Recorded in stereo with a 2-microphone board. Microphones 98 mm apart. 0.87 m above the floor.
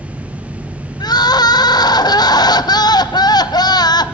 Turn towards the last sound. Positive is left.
turn(degrees=45)  # may be behind; listen again after turning